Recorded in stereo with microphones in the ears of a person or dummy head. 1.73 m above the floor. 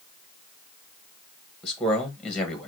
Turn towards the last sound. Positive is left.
turn(degrees=5)  # may be behind; listen again after turning